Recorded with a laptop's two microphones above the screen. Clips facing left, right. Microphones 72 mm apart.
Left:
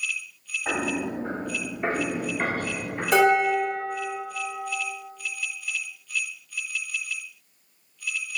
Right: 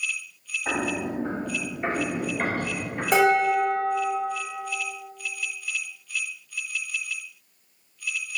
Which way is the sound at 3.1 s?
35° right (ahead or behind).